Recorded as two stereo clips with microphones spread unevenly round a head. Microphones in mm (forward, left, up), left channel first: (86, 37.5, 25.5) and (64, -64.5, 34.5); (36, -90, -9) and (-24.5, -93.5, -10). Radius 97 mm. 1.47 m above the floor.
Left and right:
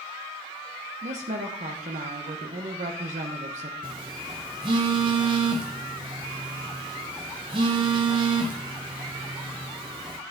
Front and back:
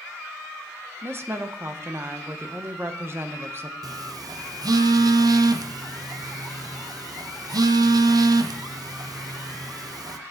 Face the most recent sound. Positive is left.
turn(degrees=-165)